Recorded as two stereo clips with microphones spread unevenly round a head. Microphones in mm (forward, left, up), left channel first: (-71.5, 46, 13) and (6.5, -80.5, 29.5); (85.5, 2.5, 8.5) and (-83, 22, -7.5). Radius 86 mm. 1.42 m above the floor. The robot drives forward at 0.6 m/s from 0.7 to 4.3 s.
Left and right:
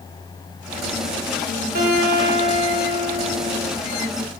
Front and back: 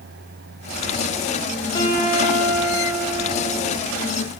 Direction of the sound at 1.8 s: 70° right.